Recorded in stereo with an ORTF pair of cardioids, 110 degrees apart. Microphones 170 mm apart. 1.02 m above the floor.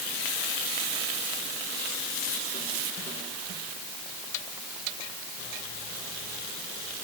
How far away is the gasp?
No gasp in this recording.